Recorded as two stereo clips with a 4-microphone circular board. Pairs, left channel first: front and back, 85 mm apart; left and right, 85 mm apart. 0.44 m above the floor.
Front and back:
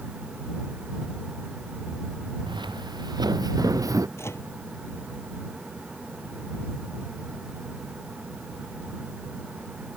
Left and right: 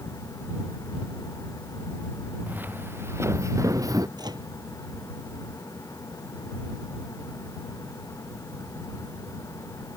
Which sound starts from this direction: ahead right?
A microwave, at 4.2 s.